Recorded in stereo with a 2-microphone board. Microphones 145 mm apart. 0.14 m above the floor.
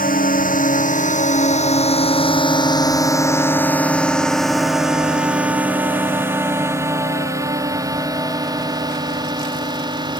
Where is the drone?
75° left (ahead or behind); by 10.2 s 30° right (ahead or behind).